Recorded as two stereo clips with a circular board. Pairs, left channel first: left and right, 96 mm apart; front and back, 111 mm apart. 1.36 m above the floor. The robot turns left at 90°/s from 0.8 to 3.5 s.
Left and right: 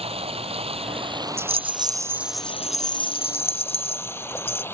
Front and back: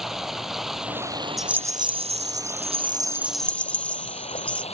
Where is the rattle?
90° right; by 4.6 s 80° left.